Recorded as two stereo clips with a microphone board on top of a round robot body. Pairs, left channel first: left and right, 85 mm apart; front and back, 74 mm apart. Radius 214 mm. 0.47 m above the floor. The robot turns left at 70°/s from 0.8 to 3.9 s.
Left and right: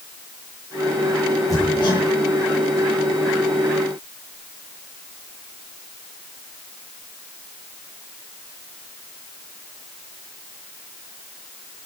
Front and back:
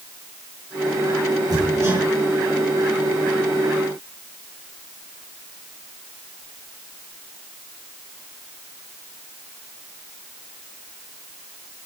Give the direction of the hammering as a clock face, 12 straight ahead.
7 o'clock.